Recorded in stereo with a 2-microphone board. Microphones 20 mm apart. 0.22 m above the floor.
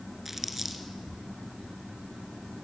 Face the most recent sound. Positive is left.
turn(degrees=-15)  # may be behind; listen again after turning